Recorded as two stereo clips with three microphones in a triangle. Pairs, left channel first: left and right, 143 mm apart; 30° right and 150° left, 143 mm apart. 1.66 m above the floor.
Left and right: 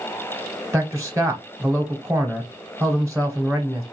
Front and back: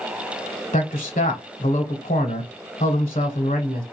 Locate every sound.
0.7 s a man speaking: 15° right, 1.0 m